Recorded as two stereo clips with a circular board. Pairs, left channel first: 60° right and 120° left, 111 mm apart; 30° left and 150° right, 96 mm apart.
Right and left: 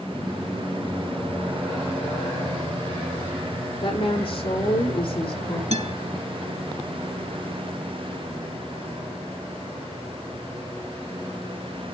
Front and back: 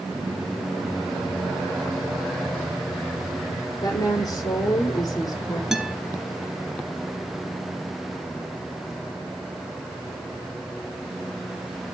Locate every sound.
3.8 s a woman speaking: 20° right, 8 m
5.7 s a guitar: 125° left, 3 m